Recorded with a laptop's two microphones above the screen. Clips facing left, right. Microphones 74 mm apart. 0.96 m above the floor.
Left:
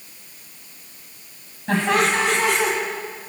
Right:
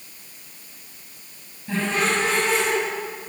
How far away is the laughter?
About 5.5 m.